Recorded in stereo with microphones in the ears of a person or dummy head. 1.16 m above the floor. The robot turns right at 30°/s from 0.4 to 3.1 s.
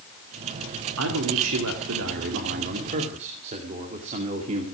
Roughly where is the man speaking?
Right.